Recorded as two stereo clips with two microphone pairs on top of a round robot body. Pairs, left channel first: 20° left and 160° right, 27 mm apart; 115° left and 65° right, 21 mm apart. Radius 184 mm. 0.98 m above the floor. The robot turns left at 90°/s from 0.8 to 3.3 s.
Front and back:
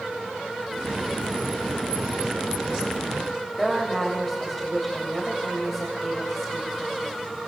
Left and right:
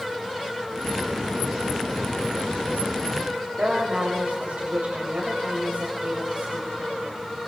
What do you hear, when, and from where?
3.6 s a woman speaking: 65° right, 6.5 m